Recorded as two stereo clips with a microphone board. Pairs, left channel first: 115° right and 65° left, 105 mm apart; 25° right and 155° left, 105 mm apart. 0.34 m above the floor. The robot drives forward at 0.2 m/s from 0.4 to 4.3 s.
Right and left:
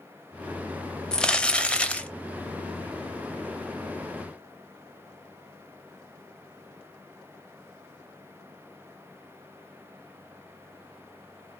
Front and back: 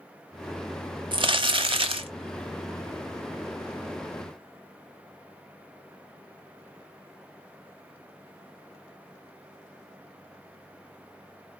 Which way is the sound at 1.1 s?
170° left.